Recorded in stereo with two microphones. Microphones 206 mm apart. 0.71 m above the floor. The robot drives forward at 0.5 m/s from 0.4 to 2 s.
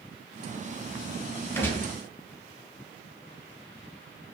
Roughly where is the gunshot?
Centre.